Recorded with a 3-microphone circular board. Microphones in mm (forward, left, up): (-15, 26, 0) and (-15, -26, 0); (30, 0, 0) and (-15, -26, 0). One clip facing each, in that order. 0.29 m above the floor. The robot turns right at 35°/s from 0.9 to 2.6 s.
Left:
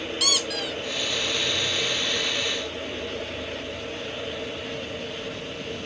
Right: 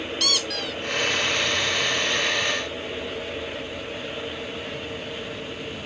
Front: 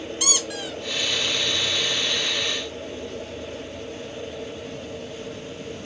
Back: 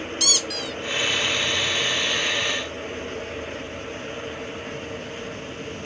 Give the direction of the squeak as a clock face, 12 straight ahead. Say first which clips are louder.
Even, even; 12 o'clock.